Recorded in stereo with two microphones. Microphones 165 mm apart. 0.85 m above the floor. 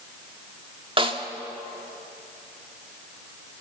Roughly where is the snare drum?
Right.